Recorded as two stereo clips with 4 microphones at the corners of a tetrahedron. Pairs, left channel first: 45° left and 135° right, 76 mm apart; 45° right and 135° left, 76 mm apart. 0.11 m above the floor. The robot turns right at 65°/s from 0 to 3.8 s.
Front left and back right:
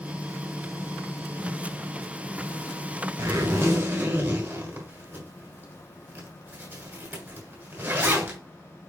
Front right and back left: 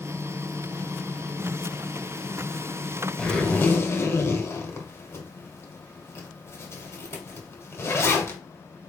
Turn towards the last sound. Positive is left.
turn(degrees=-80)